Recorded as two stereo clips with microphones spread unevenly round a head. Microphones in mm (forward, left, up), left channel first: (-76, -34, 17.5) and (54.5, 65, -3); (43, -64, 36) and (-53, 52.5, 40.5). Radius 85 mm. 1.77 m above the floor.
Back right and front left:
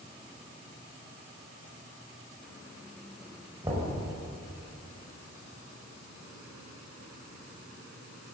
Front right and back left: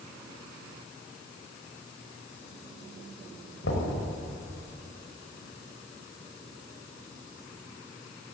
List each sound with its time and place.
3.6 s knocking: 40° right, 6 m